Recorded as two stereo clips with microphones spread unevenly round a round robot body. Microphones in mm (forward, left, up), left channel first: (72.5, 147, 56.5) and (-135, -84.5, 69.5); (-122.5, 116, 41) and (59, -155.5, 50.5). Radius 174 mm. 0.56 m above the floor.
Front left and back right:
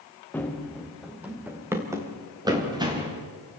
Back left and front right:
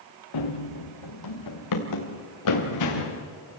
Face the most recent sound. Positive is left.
turn(degrees=155)